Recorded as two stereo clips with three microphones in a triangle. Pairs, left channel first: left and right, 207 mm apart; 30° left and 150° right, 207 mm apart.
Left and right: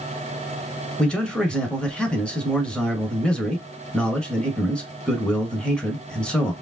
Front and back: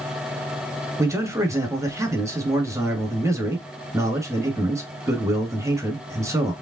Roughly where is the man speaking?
Behind.